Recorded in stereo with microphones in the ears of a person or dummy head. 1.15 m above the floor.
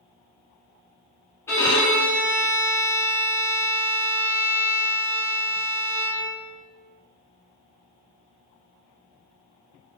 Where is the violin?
20° left (ahead or behind), 0.7 m.